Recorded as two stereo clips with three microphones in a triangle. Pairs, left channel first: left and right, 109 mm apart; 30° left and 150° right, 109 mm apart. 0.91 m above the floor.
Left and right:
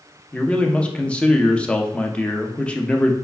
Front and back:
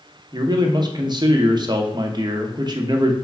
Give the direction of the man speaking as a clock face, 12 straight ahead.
6 o'clock.